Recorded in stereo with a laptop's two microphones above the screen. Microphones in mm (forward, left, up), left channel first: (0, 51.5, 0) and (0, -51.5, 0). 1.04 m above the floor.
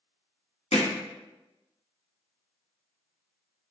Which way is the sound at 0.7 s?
65° left (ahead or behind).